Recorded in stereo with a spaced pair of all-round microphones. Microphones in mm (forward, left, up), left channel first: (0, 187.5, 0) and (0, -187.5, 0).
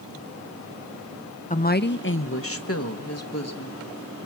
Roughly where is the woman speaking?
Left.